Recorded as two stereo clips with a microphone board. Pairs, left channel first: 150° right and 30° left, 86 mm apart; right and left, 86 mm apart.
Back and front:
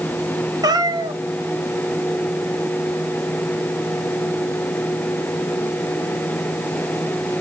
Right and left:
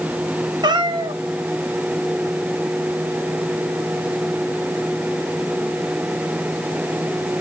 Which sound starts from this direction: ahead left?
A cat meowing, at 0.6 s.